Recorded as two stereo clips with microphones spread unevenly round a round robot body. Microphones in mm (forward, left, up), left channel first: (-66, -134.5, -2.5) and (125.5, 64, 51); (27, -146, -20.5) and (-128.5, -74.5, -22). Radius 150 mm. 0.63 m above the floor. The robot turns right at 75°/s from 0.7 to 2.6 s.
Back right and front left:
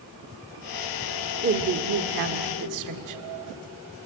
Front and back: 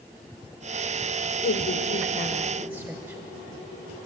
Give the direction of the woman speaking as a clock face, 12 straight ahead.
12 o'clock.